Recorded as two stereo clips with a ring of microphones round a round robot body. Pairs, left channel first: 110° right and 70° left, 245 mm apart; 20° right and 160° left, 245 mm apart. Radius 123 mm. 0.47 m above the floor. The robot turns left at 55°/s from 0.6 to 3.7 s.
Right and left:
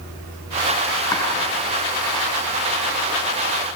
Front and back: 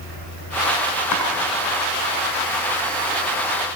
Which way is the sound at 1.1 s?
35° right.